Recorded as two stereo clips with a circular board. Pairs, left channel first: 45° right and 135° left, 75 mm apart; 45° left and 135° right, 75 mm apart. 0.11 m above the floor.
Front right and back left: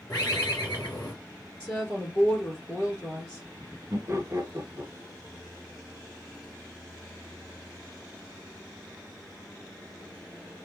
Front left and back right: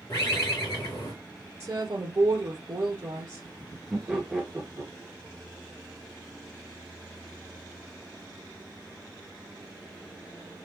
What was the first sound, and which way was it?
A bird, 10° right.